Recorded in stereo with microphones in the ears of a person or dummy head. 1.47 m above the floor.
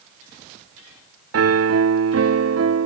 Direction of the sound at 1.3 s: 80° right.